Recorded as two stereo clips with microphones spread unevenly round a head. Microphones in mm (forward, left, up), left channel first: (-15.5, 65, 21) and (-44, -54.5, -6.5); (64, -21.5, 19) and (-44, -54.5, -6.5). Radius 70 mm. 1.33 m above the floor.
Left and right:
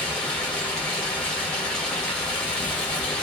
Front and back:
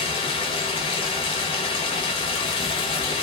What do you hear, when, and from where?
0.0 s running water: straight ahead, 0.9 m